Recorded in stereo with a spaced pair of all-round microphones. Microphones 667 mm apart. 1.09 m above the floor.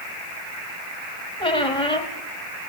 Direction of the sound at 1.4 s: 10° left (ahead or behind).